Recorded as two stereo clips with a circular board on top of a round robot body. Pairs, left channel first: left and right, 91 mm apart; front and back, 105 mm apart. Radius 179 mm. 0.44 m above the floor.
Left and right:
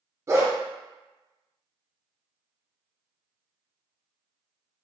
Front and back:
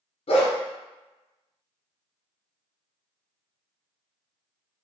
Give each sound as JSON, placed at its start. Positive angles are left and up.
{"t": 0.3, "sound": "a dog barking", "azimuth_deg": -30, "distance_m": 0.5}